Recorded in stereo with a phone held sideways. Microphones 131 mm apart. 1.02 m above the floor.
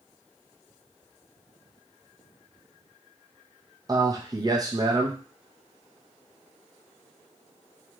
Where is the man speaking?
30° right (ahead or behind), 0.6 m.